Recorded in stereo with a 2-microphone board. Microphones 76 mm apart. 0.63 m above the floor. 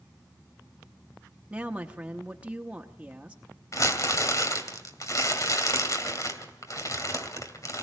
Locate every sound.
1.5 s a woman speaking: 15° right (ahead or behind), 0.9 m
3.7 s crumpling: 50° left (ahead or behind), 2 m